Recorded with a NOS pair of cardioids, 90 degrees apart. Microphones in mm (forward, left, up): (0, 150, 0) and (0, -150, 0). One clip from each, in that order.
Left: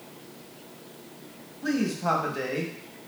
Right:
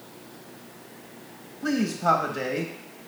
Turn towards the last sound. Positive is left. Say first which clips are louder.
# right 3 dB
turn(degrees=-5)